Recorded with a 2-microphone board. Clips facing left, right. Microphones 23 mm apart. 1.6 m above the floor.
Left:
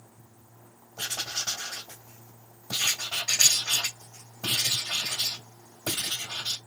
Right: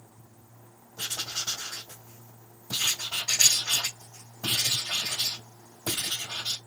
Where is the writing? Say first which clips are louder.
Left 1 dB; 25° left (ahead or behind), 1.7 m.